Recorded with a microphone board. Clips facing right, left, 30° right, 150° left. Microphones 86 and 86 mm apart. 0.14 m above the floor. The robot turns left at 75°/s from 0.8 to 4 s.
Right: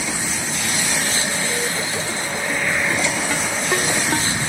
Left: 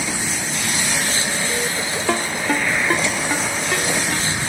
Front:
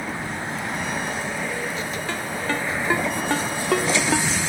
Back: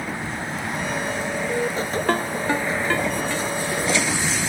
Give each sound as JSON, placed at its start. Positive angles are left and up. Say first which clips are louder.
{"t": 2.1, "sound": "a ringtone", "louder": "left 4 dB, back 5 dB", "azimuth_deg": 110}